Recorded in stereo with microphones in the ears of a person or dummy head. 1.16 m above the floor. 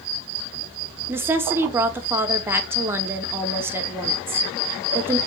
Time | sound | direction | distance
1.1 | a woman speaking | 15° right (ahead or behind) | 0.6 m